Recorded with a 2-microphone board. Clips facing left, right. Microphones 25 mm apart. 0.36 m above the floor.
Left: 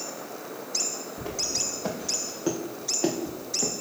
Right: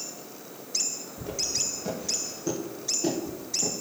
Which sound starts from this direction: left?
Footsteps, at 1.2 s.